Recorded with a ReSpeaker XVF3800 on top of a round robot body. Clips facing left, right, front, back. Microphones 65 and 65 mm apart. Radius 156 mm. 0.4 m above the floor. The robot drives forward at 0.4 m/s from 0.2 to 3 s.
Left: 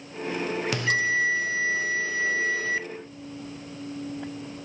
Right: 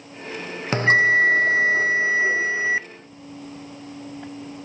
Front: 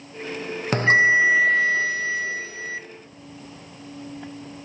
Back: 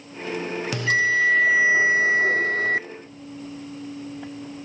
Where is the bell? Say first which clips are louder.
Right 10 dB, front 5 dB; 40° right, 0.5 m; by 2.8 s 155° right, 0.7 m.